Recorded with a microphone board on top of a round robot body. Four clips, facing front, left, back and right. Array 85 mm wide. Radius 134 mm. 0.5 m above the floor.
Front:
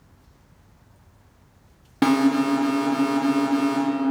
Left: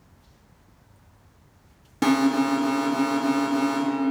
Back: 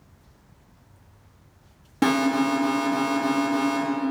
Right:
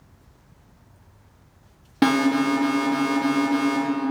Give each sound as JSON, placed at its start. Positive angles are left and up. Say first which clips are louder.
{"t": 2.0, "sound": "an alarm", "louder": "right 1 dB, front 2 dB", "azimuth_deg": -70, "distance_m": 1.3}